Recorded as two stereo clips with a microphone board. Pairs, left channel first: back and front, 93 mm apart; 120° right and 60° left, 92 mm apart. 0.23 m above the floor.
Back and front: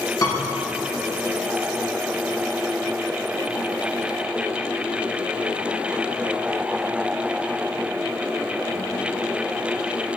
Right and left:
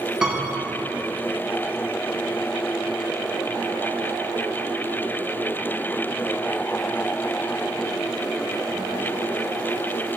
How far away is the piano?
About 4 m.